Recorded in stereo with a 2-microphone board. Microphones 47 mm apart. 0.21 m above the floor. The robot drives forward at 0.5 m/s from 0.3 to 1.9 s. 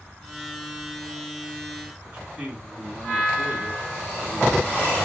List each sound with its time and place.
2.0 s a man speaking: 30° right (ahead or behind), 2 m